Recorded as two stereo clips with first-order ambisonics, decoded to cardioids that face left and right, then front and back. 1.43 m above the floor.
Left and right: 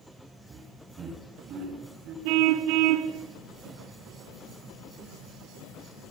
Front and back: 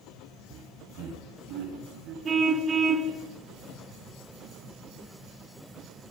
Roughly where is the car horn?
Right.